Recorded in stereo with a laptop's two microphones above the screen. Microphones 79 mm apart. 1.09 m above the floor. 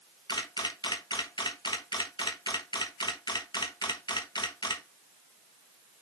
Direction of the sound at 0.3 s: 70° left (ahead or behind).